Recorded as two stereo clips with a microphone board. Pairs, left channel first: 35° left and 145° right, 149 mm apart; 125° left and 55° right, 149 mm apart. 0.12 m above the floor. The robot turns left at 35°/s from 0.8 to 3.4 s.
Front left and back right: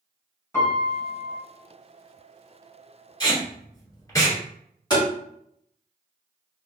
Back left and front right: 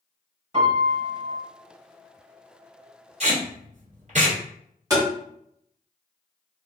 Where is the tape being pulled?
25° right, 1.4 m; by 4.4 s 30° right, 1.4 m.